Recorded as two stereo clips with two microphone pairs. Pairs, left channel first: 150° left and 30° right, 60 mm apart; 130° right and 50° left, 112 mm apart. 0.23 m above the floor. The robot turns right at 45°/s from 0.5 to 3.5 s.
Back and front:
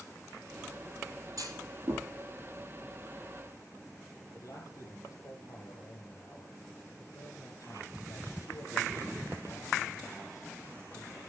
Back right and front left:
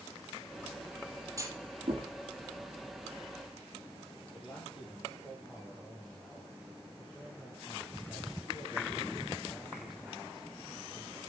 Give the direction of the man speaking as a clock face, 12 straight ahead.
7 o'clock.